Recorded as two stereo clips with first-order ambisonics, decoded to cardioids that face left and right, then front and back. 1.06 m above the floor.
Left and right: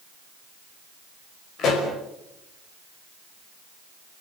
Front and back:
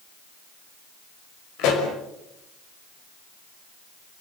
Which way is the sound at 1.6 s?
35° left.